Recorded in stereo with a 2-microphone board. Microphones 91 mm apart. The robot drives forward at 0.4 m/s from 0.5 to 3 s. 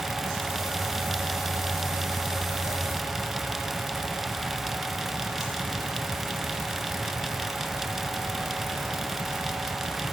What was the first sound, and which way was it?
Only background noise.